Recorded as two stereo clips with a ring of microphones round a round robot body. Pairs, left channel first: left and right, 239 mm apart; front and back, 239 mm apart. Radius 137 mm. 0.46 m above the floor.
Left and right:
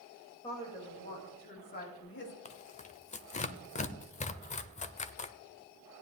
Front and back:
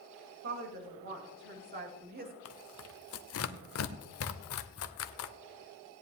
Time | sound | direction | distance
0.4 | a woman speaking | 160° left | 2.5 m
2.5 | tearing paper | 30° left | 0.7 m